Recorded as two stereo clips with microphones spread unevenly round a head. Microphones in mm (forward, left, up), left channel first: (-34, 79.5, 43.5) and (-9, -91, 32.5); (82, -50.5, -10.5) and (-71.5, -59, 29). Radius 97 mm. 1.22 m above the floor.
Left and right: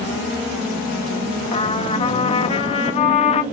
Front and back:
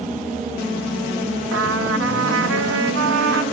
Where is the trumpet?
155° left, 0.6 m.